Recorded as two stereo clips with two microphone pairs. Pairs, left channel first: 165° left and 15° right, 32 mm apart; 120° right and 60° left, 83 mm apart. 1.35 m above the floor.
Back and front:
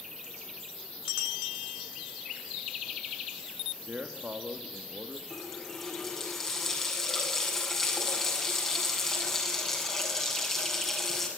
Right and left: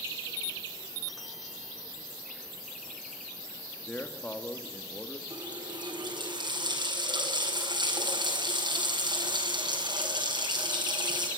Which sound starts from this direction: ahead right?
A man speaking, at 3.9 s.